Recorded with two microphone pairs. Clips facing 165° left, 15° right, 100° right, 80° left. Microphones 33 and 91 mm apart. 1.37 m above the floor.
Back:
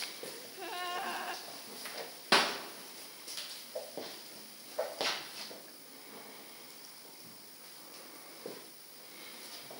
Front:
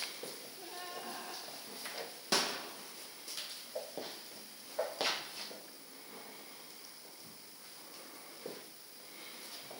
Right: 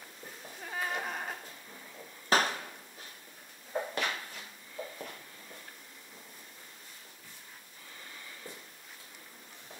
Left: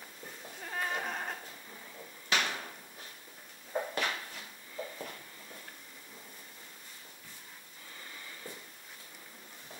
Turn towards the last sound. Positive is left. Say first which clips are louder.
# back 6 dB, right 5 dB
turn(degrees=-150)